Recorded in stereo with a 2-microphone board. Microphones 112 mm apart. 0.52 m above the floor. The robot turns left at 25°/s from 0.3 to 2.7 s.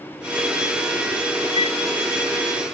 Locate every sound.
1.6 s a flute: 75° left (ahead or behind), 0.8 m; by 1.8 s 70° left (ahead or behind), 0.8 m